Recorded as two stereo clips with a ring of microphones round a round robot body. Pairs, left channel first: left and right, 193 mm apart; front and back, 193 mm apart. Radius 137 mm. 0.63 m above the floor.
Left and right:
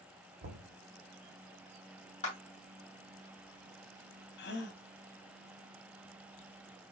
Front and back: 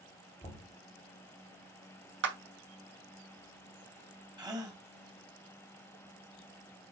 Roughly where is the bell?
I don't hear a bell.